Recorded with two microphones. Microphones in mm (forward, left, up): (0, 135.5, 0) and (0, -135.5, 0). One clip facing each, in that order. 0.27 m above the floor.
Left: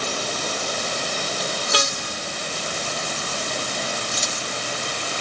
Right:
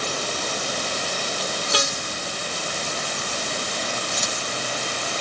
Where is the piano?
No piano in this recording.